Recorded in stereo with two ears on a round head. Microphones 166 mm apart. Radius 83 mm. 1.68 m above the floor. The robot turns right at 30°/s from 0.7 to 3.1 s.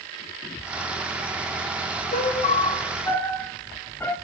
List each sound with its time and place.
2.1 s a piano: 40° left (ahead or behind), 0.7 m; by 4.2 s 10° left (ahead or behind), 0.7 m